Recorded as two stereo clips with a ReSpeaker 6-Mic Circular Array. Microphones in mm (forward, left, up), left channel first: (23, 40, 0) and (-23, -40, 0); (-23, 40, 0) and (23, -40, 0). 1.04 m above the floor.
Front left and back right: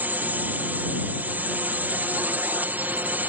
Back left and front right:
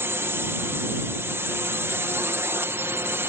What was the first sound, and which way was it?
A drone, 75° right.